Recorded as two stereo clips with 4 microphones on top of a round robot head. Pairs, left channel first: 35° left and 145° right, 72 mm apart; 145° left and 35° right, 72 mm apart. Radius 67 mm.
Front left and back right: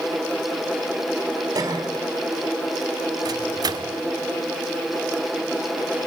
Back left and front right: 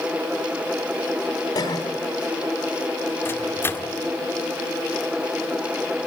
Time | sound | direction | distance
1.6 | a cough | 170° left | 4 m
3.2 | a microwave | 160° right | 1.7 m